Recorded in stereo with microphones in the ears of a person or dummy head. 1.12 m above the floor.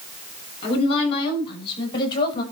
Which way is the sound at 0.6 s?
45° left (ahead or behind).